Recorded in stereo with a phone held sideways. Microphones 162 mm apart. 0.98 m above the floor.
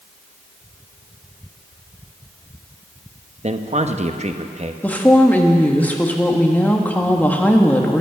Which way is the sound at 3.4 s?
45° right (ahead or behind).